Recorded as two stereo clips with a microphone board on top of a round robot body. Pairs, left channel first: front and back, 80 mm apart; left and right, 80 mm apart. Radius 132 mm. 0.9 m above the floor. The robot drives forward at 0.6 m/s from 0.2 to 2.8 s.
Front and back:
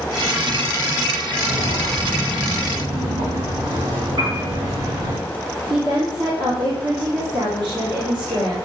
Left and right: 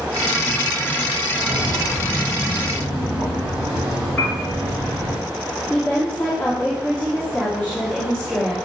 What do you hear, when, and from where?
1.4 s footsteps: 165° left, 3 m; by 5.2 s 150° right, 5 m
4.2 s a piano: 165° left, 3 m
5.7 s a woman speaking: 170° left, 3 m